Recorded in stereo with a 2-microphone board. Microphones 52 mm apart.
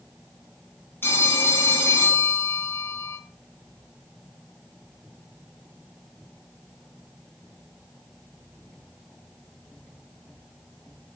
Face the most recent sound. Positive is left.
turn(degrees=45)  # may be behind; listen again after turning